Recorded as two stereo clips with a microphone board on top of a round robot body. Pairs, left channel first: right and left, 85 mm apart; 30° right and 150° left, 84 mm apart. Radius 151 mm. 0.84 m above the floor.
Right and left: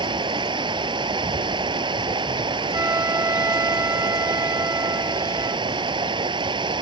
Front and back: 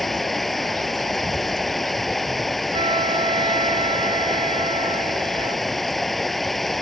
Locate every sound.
0.0 s running water: 60° left
2.7 s a flute: 150° left